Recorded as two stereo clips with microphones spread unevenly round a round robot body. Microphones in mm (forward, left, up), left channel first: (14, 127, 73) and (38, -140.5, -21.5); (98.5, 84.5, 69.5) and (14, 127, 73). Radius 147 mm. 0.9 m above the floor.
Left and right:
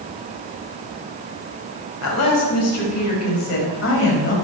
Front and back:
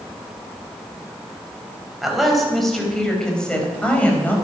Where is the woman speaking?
65° left, 4.5 m; by 4.3 s 45° left, 4.5 m.